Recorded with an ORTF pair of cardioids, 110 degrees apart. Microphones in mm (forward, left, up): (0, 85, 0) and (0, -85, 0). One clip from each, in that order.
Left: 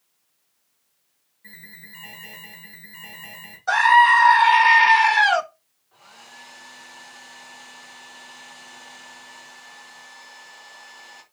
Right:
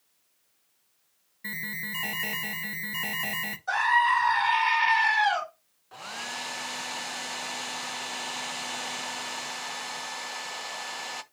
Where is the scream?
45° left, 1.9 m.